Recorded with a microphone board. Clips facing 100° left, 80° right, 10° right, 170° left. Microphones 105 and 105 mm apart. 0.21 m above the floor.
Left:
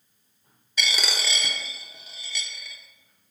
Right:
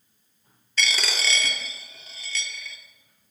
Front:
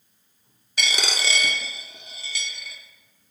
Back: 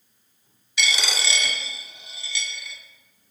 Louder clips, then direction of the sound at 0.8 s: Right 1 dB, even; 20° left.